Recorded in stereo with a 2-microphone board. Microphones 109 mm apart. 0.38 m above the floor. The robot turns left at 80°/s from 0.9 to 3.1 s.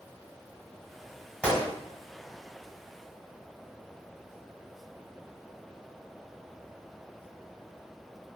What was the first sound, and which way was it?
A gunshot, 10° left (ahead or behind).